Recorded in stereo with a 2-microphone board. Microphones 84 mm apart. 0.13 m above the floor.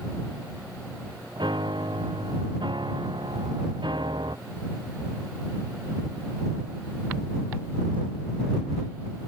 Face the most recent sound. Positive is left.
turn(degrees=-80)